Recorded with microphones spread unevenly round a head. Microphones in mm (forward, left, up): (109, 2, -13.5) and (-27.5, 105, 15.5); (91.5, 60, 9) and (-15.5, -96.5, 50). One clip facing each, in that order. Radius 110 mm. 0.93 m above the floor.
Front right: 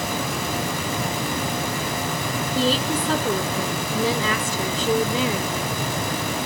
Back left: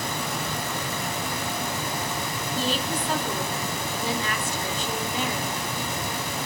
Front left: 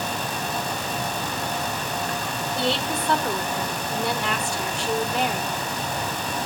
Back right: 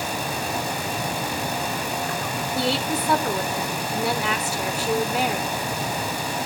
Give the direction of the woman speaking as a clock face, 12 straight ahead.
1 o'clock.